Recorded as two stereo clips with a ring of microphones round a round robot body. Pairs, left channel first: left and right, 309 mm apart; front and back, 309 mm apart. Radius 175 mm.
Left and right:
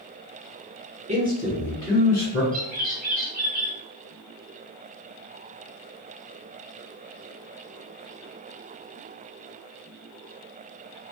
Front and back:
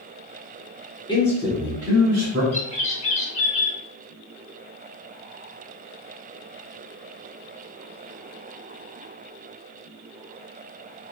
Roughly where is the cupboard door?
I don't hear a cupboard door.